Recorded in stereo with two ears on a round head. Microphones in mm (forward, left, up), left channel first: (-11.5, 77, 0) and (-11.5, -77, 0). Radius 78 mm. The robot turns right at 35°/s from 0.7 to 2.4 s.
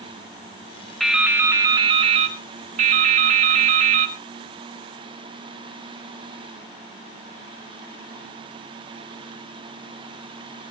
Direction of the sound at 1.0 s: Straight behind.